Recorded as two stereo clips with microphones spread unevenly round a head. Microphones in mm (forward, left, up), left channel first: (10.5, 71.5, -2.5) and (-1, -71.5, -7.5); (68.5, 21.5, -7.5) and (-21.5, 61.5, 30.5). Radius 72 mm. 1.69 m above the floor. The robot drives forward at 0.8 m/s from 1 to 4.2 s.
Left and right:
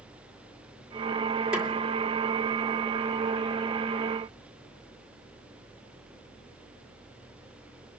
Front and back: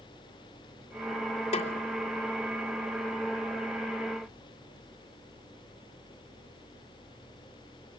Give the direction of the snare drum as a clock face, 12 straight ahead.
12 o'clock.